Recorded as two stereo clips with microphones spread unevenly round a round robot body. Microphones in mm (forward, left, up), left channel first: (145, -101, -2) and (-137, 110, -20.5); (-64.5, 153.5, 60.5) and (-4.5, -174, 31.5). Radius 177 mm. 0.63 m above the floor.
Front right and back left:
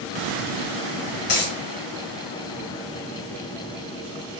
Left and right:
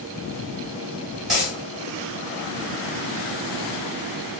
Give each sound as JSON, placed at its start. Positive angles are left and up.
{"t": 1.3, "sound": "a dropped coin", "azimuth_deg": 10, "distance_m": 0.9}